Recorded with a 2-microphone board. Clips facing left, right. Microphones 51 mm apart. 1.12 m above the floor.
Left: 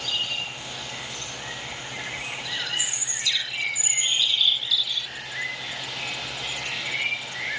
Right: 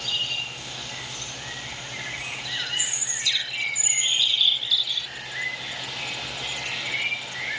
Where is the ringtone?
I don't hear a ringtone.